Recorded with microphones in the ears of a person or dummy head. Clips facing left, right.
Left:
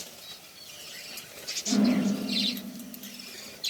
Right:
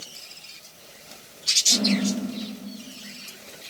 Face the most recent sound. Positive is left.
turn(degrees=40)  # may be behind; listen again after turning